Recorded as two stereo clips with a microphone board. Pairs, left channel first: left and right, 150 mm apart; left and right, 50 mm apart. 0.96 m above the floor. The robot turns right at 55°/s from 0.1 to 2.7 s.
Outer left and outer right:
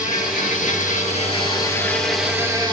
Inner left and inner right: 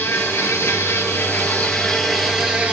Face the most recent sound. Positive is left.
turn(degrees=-150)